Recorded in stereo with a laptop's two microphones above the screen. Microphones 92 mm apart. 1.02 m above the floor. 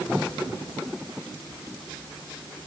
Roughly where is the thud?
No thud in this recording.